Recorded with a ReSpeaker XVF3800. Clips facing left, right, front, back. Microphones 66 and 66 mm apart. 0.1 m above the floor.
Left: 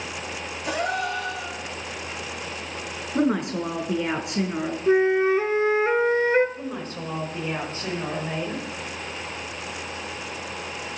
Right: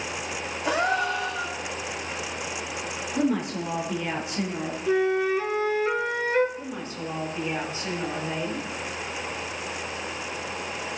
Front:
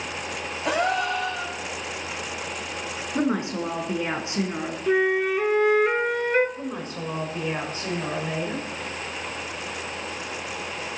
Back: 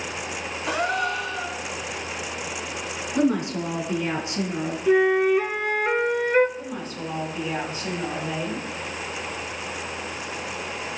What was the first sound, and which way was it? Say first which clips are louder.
A gasp: right 2 dB, front 1 dB; 30° right.